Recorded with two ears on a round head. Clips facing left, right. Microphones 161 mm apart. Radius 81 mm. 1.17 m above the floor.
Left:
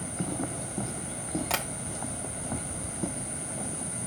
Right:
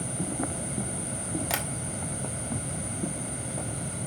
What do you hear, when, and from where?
1.5 s tapping: 15° right (ahead or behind), 1.2 m